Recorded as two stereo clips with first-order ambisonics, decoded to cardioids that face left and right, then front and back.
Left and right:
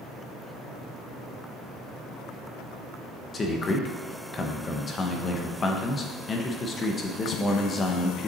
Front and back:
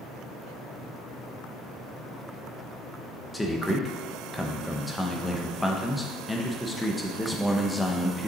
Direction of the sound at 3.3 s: 75° left.